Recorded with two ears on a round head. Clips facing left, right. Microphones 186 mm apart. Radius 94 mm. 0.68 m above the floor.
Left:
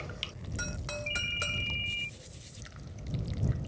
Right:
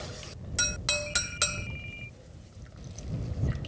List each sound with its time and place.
1.1 s a ringtone: 40° left (ahead or behind)